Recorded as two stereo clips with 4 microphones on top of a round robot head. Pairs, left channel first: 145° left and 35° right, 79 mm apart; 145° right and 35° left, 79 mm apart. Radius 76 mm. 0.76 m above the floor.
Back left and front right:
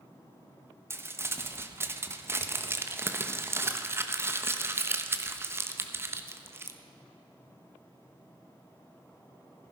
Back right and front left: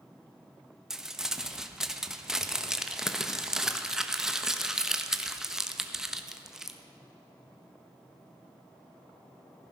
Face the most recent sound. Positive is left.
turn(degrees=-40)